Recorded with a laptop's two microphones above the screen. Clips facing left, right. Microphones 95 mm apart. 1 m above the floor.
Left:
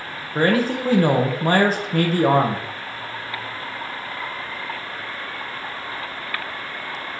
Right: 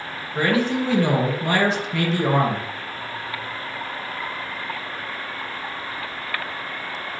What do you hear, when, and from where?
0.3 s a man speaking: 40° left (ahead or behind), 0.9 m